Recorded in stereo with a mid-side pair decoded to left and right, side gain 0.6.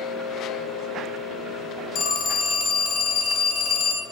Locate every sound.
1.9 s a phone ringing: 65° left, 0.6 m